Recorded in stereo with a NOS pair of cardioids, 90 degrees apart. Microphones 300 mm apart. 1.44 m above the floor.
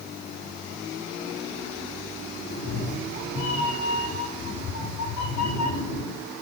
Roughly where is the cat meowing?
Ahead left.